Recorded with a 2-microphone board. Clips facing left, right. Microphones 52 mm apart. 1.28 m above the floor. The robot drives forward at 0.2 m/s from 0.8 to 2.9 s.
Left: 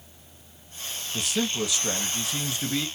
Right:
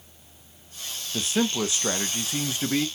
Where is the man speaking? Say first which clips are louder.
Right 3 dB; 35° right (ahead or behind), 0.9 m; by 2.9 s 25° right (ahead or behind), 1.1 m.